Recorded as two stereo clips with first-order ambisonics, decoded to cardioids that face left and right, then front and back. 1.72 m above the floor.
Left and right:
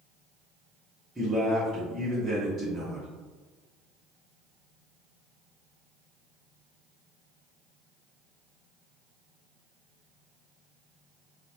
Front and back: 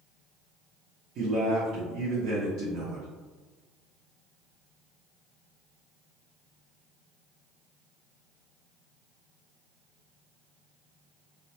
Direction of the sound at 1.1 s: 175° right.